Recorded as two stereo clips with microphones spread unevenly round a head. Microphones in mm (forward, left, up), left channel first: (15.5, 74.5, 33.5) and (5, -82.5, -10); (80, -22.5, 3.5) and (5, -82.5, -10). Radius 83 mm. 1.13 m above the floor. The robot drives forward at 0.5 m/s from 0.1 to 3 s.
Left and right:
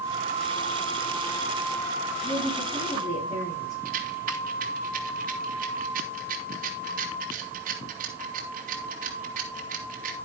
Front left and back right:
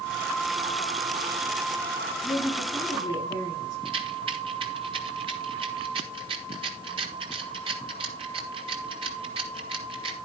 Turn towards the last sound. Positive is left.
turn(degrees=-125)